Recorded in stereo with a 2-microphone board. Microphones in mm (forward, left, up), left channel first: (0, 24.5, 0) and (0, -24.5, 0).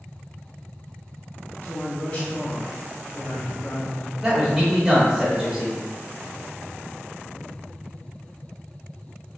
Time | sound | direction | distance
1.6 | a man speaking | 40° left (ahead or behind) | 1.7 m
4.2 | a man speaking | 15° right (ahead or behind) | 1.0 m